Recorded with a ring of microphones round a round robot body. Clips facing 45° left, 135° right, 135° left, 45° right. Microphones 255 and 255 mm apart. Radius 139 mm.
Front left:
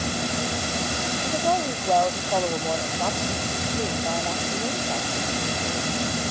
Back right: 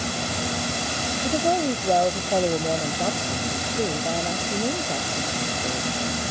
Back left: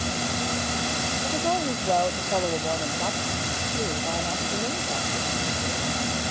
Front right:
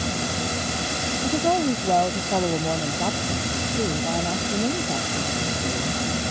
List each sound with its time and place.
1.2 s a woman speaking: 60° right